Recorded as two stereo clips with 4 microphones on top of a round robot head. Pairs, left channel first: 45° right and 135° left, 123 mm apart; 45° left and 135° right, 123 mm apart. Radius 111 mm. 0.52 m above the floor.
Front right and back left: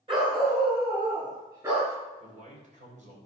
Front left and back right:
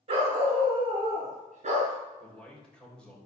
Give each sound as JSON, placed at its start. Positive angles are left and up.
{"t": 0.1, "sound": "a dog barking", "azimuth_deg": -175, "distance_m": 3.5}
{"t": 2.2, "sound": "a man speaking", "azimuth_deg": 130, "distance_m": 3.5}